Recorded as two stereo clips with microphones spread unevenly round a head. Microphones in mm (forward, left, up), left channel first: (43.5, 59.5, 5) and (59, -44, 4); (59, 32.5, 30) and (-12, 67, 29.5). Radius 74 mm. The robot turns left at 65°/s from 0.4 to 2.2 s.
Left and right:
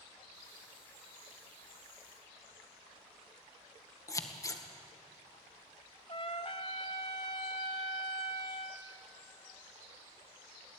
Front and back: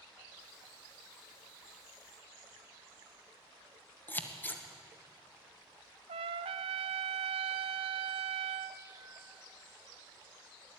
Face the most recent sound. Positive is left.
turn(degrees=160)